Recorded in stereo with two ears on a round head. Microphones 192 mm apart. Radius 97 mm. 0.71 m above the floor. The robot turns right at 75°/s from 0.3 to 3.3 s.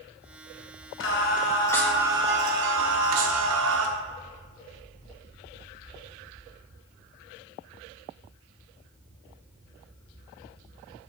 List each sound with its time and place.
1.0 s singing: 115° left, 0.8 m; by 3.9 s 75° right, 0.8 m